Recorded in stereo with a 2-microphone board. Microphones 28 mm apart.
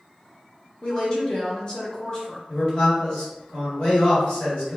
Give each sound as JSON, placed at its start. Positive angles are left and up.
{"t": 0.8, "sound": "a woman speaking", "side_deg": 30, "distance_m": 0.8}
{"t": 2.5, "sound": "a man speaking", "side_deg": 40, "distance_m": 1.9}